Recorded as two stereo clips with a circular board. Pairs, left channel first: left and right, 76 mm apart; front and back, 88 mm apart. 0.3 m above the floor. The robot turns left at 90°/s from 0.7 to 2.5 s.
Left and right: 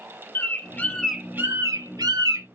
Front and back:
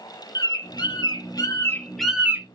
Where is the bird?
30° left, 0.8 m; by 2.5 s 125° right, 0.8 m.